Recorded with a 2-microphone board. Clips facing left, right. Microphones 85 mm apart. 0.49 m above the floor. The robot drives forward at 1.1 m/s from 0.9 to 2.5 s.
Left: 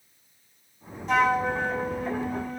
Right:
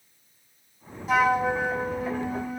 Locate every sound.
1.1 s a flute: 5° right (ahead or behind), 1.4 m